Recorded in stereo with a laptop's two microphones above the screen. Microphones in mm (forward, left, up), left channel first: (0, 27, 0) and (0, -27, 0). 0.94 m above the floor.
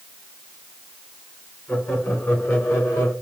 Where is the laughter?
40° left (ahead or behind), 3 m; by 3.1 s 55° left (ahead or behind), 3 m.